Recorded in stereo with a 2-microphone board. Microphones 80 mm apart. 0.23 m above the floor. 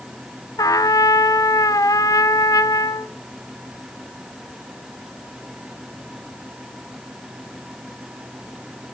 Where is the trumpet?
45° left (ahead or behind), 0.7 m.